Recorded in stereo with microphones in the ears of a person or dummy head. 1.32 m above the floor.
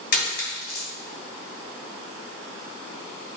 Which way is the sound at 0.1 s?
55° left (ahead or behind).